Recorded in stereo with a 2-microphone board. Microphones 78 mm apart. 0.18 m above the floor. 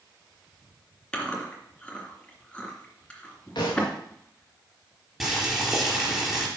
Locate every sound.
1.1 s chewing: 15° left (ahead or behind), 2.5 m
3.5 s a thud: 65° left (ahead or behind), 5 m
5.2 s boiling: centre (ahead or behind), 4.5 m